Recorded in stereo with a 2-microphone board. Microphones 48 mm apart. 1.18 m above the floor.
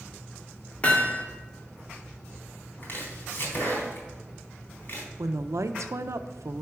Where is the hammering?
30° left (ahead or behind), 1.5 m.